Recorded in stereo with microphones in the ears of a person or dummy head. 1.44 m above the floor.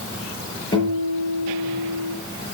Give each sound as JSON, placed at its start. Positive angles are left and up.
{"t": 0.7, "sound": "a guitar", "side_deg": 25, "distance_m": 6.0}